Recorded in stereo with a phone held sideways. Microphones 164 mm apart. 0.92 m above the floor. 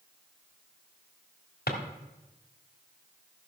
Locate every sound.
1.7 s a drawer: 75° left (ahead or behind), 1.6 m